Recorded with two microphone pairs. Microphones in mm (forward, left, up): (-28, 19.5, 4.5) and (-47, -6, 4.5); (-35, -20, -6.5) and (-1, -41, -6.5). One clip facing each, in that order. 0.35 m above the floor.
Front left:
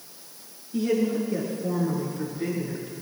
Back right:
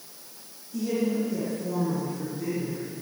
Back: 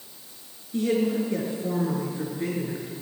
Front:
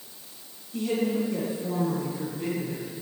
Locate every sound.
0.7 s a woman speaking: 105° left, 5.5 m